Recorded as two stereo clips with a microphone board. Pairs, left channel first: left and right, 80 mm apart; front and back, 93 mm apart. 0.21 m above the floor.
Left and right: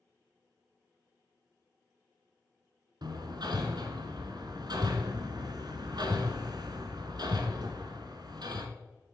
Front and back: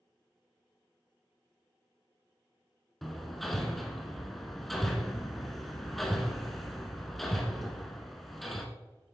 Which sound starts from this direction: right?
Hammering, at 3.0 s.